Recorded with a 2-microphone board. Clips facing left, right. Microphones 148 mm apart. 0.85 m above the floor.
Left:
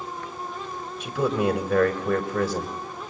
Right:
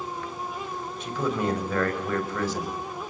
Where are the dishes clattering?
No dishes clattering in this recording.